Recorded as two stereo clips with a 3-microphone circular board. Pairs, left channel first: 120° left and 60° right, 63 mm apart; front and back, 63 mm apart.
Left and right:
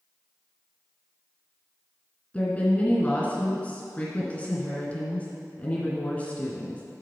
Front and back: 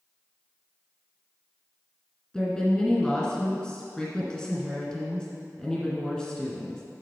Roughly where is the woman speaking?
Left.